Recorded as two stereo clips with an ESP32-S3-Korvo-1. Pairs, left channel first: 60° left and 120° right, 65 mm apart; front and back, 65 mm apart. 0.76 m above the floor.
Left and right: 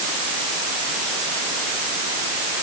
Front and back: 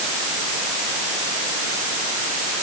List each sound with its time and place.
Only background noise.